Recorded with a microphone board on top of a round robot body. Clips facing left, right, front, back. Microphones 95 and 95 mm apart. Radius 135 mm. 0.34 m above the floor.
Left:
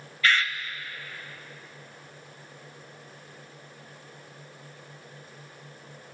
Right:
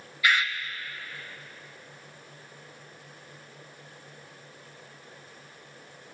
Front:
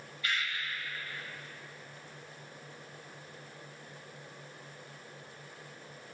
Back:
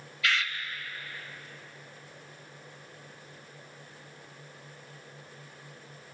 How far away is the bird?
About 1.7 m.